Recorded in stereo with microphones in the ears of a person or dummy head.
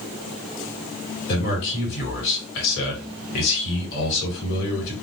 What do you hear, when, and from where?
1.3 s a man speaking: 70° left (ahead or behind), 1.4 m